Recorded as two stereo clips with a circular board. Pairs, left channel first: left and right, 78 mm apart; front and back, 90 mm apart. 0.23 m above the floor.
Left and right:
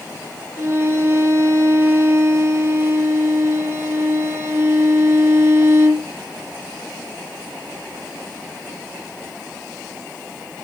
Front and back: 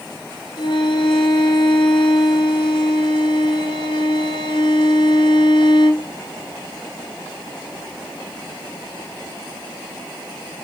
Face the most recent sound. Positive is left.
turn(degrees=-25)